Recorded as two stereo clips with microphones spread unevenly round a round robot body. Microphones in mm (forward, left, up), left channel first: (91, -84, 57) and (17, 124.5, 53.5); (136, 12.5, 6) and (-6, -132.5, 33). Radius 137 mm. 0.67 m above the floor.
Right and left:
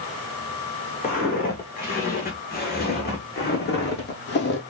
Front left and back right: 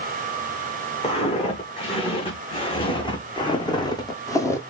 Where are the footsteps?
20° right, 3.5 m; by 4.6 s 35° right, 1.5 m.